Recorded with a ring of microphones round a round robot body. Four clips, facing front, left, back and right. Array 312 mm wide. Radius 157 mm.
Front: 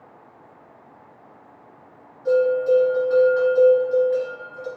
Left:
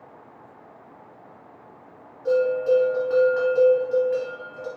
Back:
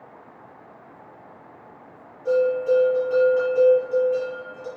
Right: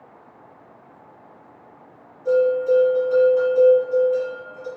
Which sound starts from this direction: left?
A bell, at 2.2 s.